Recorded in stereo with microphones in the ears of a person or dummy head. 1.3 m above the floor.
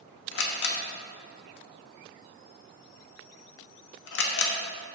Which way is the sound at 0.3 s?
60° left (ahead or behind).